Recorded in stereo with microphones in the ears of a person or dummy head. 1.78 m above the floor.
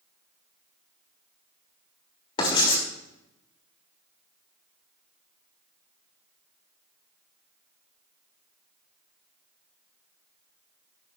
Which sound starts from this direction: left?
Writing, at 2.4 s.